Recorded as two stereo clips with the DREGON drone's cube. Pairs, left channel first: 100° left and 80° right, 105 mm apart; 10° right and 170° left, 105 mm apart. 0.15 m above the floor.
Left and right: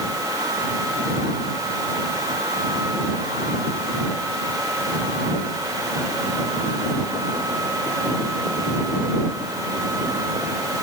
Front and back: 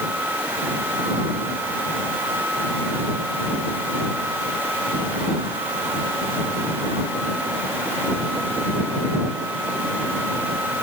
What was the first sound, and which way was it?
Only background noise.